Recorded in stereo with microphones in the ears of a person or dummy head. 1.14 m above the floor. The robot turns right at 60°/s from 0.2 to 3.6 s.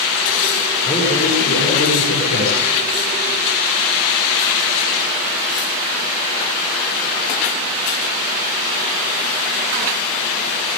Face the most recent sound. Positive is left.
turn(degrees=-170)